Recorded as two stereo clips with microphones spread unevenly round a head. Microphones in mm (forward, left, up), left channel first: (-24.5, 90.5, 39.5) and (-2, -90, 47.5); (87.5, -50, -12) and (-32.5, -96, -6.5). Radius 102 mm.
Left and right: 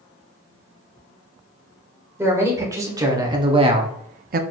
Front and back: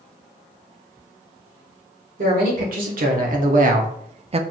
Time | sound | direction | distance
2.2 | a man speaking | 160° right | 1.7 m